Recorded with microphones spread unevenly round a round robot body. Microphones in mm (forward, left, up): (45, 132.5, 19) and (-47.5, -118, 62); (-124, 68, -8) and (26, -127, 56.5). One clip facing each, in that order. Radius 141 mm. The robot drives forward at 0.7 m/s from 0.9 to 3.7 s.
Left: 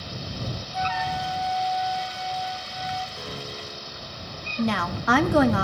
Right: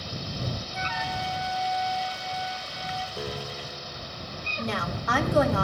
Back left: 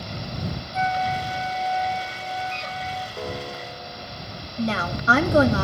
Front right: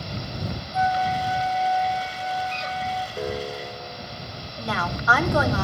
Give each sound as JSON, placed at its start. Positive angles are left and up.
{"t": 0.7, "sound": "a flute", "azimuth_deg": 175, "distance_m": 1.3}
{"t": 3.2, "sound": "a piano", "azimuth_deg": -130, "distance_m": 2.0}
{"t": 4.6, "sound": "a woman speaking", "azimuth_deg": 65, "distance_m": 2.0}